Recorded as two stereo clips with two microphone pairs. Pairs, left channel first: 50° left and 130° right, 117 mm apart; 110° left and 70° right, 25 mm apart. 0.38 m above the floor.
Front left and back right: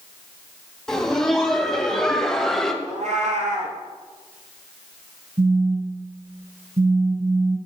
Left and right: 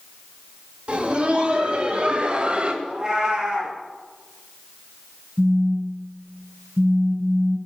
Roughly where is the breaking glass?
I don't hear breaking glass.